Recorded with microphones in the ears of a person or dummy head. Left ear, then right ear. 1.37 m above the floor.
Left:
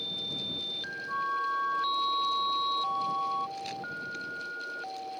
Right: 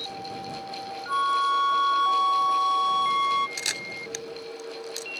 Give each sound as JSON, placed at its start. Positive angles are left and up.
{"t": 1.1, "sound": "a flute", "side_deg": -55}
{"t": 3.6, "sound": "a camera shutter", "side_deg": -55}